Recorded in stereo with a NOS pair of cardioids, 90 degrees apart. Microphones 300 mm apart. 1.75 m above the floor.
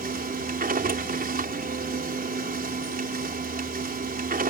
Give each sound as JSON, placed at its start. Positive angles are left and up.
{"t": 0.0, "sound": "a machine running", "azimuth_deg": -25}